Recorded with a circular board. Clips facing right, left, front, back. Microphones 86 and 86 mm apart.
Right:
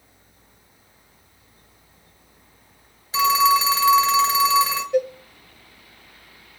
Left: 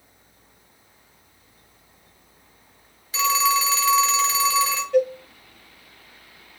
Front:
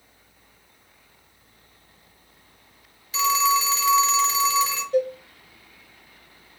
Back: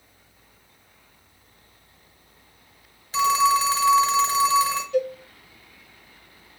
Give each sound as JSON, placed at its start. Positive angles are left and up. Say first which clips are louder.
{"t": 3.1, "sound": "a phone ringing", "louder": "right 4 dB, back 2 dB", "azimuth_deg": -140, "distance_m": 1.3}
{"t": 4.9, "sound": "a cowbell", "louder": "left 2 dB, front 2 dB", "azimuth_deg": -15, "distance_m": 1.1}